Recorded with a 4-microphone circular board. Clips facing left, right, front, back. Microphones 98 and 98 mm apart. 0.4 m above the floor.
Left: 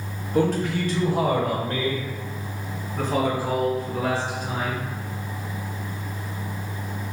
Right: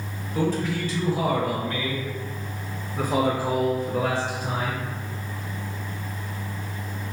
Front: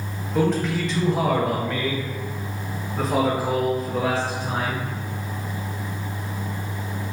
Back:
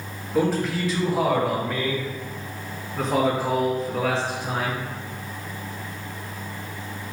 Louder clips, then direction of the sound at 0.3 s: Left 3 dB, front 1 dB; 95° left.